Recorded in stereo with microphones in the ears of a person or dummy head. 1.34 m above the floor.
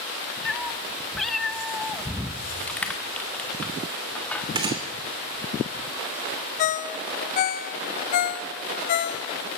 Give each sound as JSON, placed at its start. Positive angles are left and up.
{"t": 0.5, "sound": "a cat meowing", "side_deg": 5, "distance_m": 0.6}
{"t": 2.7, "sound": "crushing", "side_deg": 10, "distance_m": 1.3}
{"t": 4.5, "sound": "a gunshot", "side_deg": -25, "distance_m": 2.0}
{"t": 6.6, "sound": "a ringtone", "side_deg": 40, "distance_m": 0.5}